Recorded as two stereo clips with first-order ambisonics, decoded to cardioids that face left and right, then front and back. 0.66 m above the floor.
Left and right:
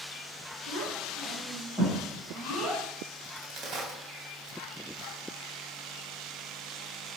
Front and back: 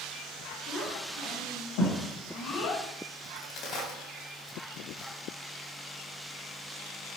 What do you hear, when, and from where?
0.7 s a child speaking: 40° right, 3.5 m; by 2.9 s 5° right, 2 m
3.2 s a crack: 40° right, 3 m